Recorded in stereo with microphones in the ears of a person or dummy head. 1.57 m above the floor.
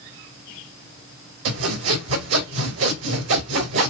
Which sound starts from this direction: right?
Sawing, at 1.4 s.